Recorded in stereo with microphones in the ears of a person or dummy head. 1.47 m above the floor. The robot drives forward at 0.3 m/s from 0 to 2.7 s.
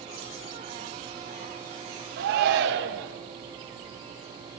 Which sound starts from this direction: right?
A shout, at 2.2 s.